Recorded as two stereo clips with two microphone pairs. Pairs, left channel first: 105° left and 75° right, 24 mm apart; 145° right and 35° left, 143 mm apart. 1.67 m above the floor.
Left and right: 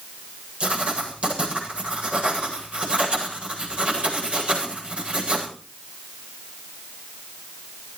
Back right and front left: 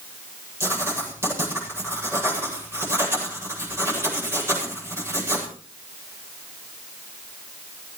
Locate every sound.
0.6 s writing: 35° right, 8.5 m